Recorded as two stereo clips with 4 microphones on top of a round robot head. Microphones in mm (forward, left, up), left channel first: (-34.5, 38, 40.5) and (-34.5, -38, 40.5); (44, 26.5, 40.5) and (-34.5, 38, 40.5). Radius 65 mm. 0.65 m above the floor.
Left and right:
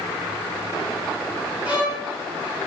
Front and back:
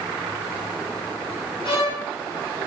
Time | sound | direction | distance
1.6 | a violin | 15° right | 3.5 m